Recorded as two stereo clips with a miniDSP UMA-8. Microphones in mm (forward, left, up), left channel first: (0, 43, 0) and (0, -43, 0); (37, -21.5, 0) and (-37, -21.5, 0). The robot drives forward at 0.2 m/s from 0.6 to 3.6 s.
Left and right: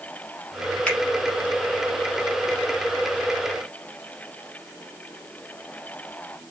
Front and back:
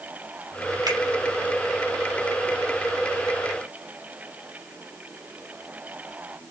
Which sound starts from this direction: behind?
A finger snap, at 0.9 s.